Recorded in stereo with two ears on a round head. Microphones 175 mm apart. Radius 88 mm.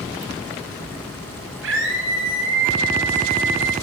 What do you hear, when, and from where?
1.6 s a scream: 65° right (ahead or behind), 9 m